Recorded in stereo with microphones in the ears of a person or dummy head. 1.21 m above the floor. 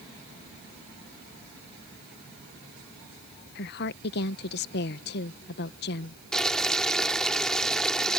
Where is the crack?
No crack in this recording.